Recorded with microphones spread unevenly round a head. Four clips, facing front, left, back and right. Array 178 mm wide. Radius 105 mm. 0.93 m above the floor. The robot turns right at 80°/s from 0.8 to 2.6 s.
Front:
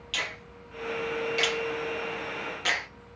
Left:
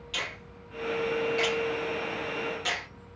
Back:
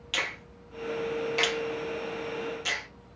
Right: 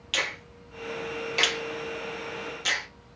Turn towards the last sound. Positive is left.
turn(degrees=0)